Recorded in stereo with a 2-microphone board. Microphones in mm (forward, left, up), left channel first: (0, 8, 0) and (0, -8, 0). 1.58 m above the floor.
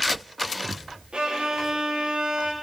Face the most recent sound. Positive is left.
turn(degrees=-70)  # may be behind; listen again after turning